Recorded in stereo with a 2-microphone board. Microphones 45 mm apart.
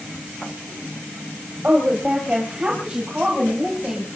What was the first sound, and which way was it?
A woman speaking, 25° right (ahead or behind).